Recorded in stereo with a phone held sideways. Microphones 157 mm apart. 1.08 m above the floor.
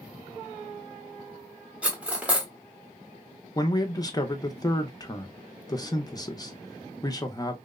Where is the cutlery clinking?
10° right (ahead or behind), 0.7 m.